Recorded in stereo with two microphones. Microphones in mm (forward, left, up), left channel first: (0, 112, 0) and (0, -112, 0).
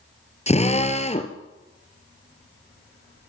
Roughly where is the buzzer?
No buzzer in this recording.